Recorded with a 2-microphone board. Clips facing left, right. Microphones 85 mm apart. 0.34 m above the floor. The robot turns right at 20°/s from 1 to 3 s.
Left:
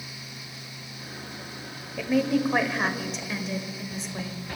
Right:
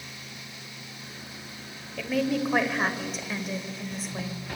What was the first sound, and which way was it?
A woman speaking, 10° left (ahead or behind).